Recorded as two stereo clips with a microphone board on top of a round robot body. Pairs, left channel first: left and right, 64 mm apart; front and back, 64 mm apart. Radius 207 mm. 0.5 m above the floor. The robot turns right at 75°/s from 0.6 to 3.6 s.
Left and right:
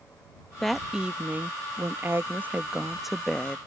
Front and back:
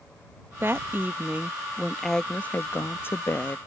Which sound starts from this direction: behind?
A woman speaking, at 0.6 s.